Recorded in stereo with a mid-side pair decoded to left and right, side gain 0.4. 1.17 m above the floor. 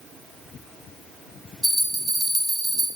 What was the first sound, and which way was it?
A bell, 55° right.